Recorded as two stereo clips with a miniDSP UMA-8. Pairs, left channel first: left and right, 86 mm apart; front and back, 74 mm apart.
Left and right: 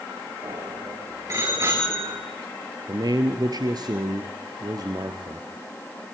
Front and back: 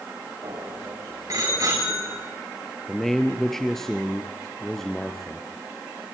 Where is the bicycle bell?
140° right, 8 m.